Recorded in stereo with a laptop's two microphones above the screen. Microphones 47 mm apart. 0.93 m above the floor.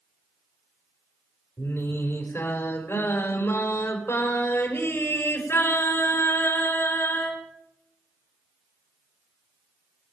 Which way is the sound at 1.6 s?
60° left (ahead or behind).